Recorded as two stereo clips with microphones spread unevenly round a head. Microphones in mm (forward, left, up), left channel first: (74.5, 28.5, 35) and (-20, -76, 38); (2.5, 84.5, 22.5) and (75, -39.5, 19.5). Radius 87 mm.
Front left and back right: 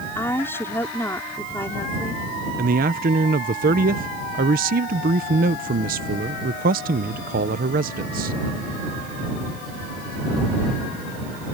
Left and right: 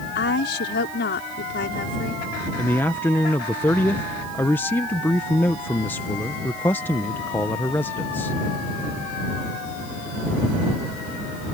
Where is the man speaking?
160° right.